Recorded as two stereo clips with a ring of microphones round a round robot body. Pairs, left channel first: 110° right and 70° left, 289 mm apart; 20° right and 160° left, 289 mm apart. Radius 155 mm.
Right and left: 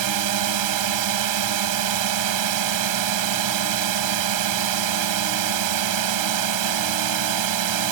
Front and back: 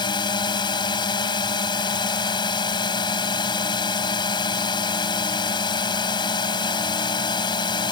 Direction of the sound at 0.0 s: 55° left.